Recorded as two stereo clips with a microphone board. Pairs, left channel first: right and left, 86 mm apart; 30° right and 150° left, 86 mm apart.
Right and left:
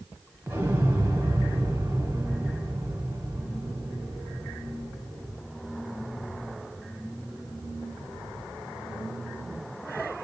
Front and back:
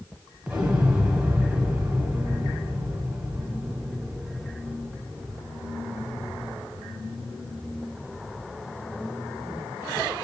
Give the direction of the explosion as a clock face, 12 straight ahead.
9 o'clock.